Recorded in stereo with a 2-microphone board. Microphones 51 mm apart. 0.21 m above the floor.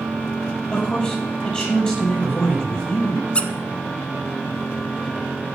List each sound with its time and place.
0.7 s a man speaking: 25° left (ahead or behind), 5.5 m
3.4 s a squeak: 25° left (ahead or behind), 0.7 m